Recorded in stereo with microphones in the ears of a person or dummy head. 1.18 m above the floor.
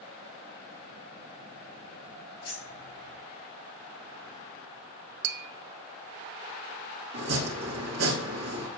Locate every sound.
2.4 s keys jangling: 25° left (ahead or behind), 3.5 m
5.2 s tapping: 65° right (ahead or behind), 0.6 m
7.1 s chopping: 80° right, 1.5 m